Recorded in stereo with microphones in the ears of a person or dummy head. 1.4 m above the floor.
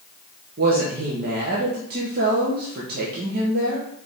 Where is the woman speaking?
50° right (ahead or behind), 1.2 m.